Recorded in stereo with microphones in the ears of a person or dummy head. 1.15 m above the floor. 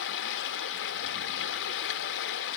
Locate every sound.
0.0 s running water: 65° left (ahead or behind), 0.8 m